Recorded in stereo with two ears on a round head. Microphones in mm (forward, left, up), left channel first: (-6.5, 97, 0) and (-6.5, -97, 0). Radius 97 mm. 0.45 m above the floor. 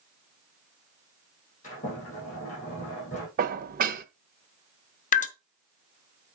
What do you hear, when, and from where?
1.6 s a sliding door: 35° left (ahead or behind), 6 m
3.4 s dishes clattering: 40° right (ahead or behind), 0.6 m
5.1 s dripping: 40° left (ahead or behind), 0.7 m